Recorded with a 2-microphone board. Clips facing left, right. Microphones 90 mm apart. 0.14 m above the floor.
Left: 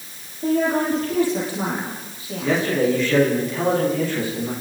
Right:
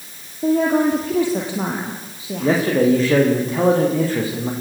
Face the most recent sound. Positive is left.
turn(degrees=-40)  # may be behind; listen again after turning